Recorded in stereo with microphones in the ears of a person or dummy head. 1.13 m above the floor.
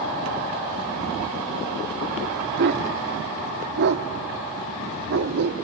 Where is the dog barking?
50° right (ahead or behind), 0.8 m.